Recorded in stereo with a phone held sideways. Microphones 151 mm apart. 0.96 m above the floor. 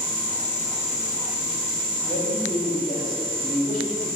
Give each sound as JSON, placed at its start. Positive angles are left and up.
{"t": 2.0, "sound": "a man speaking", "side_deg": 55, "distance_m": 4.0}